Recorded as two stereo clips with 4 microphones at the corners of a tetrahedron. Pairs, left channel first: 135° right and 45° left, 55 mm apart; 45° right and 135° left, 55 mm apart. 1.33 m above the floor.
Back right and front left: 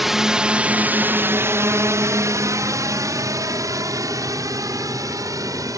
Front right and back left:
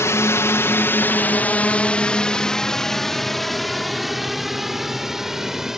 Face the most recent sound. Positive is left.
turn(degrees=55)